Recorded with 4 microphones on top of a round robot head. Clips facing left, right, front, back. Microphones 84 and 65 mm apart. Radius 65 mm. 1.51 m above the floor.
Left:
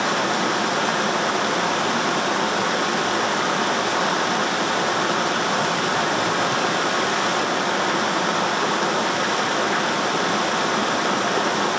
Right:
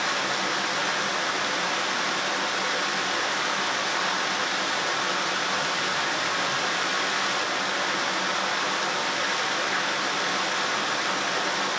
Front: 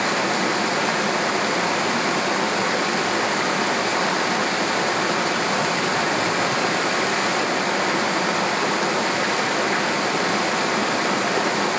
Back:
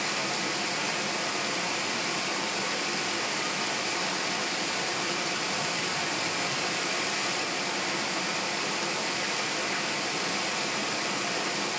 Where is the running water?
40° left, 1.3 m.